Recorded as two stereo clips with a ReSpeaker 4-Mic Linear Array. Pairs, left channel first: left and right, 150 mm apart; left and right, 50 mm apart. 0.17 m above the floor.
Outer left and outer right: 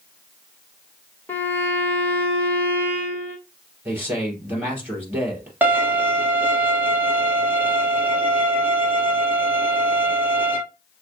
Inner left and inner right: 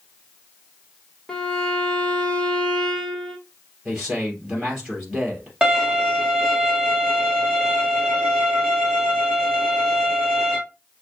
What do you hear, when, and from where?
1.3 s a violin: 10° left (ahead or behind), 1.2 m
3.9 s a man speaking: 15° right (ahead or behind), 3 m
5.6 s a violin: 10° right (ahead or behind), 1.5 m